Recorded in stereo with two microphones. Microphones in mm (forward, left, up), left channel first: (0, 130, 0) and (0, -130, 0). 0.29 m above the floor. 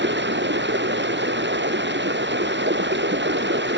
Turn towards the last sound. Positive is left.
turn(degrees=-45)  # may be behind; listen again after turning